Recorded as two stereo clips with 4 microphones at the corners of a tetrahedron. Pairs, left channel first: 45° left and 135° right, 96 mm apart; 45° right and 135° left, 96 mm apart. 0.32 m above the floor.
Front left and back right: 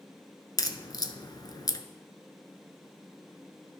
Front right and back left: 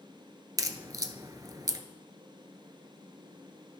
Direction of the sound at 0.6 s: 85° left.